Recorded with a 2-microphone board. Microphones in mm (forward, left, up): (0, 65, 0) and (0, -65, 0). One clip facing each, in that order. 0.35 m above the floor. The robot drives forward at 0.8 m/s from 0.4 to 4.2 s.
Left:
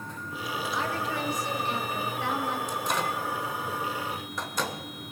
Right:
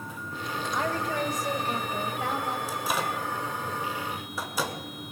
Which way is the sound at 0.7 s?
45° right (ahead or behind).